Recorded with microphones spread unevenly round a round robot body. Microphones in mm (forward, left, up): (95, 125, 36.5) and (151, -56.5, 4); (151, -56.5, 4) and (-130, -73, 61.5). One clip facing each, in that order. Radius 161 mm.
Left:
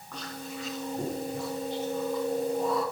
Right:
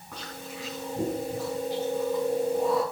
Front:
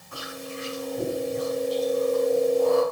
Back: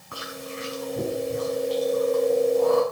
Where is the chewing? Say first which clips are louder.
Left 1 dB, even; 155° right, 6 m.